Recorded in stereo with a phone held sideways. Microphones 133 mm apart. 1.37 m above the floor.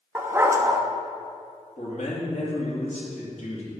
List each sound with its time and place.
0.1 s a dog barking: 20° right (ahead or behind), 0.7 m
1.8 s a man speaking: 60° left (ahead or behind), 2.5 m